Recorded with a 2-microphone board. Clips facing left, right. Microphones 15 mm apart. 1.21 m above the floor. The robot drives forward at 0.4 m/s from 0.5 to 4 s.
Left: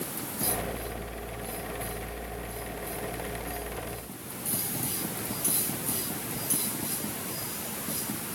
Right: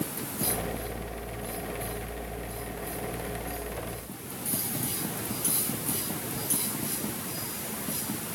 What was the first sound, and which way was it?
Only background noise.